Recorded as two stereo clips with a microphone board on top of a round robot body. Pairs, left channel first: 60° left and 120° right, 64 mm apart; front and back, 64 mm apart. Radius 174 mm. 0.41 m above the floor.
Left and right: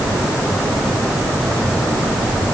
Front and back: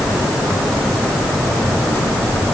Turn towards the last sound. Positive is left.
No sound to turn to.